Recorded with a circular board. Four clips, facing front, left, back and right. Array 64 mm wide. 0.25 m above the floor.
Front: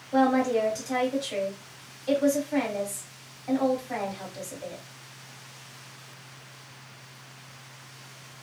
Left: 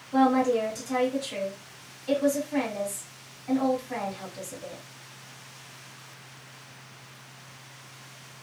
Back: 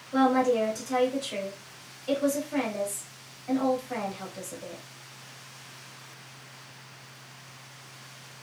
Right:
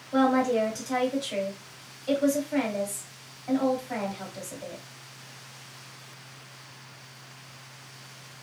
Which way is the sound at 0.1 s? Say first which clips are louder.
Left 1 dB, even; 40° right.